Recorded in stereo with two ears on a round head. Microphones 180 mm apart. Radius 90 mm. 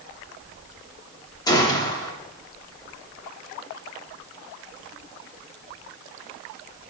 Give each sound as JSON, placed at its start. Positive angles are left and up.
{"t": 1.5, "sound": "a gunshot", "side_deg": 20, "distance_m": 1.1}